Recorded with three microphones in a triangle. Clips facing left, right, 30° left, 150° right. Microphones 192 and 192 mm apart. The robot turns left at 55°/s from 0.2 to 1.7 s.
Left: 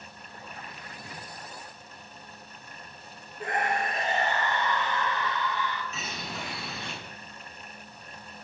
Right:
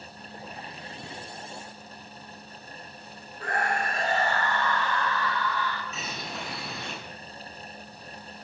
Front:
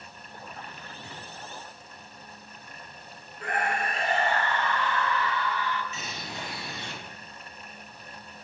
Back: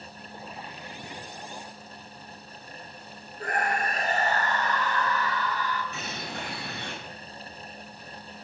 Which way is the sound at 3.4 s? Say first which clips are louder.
Even, back 1 dB; 160° left.